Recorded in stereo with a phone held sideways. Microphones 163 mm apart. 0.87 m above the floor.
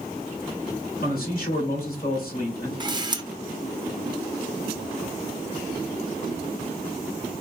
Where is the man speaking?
60° left (ahead or behind), 2 m.